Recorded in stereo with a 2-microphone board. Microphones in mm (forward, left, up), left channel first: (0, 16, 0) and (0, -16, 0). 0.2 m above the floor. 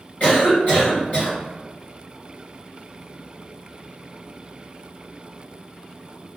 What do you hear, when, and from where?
0.2 s a cough: 45° left (ahead or behind), 2.0 m